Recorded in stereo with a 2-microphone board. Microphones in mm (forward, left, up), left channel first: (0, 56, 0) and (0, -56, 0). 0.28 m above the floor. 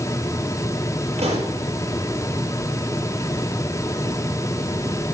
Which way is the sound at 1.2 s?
75° right (ahead or behind).